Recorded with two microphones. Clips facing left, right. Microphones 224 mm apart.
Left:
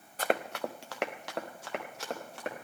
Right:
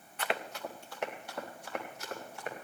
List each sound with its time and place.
0.2 s running footsteps: 40° left (ahead or behind), 0.7 m; by 2.6 s 75° left (ahead or behind), 3.5 m